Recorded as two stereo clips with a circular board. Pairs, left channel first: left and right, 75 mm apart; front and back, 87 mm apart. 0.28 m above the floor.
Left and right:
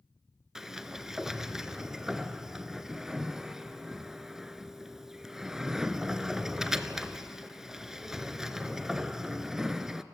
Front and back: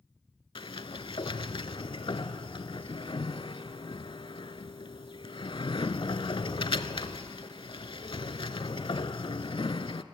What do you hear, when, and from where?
0.6 s a sliding door: 5° right, 0.6 m